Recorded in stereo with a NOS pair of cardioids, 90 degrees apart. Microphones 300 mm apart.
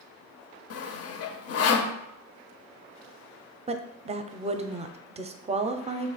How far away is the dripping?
I don't hear dripping.